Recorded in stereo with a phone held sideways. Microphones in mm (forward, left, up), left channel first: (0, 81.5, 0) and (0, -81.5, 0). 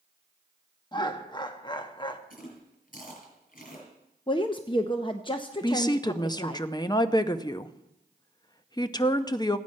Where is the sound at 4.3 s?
30° left (ahead or behind), 0.7 m.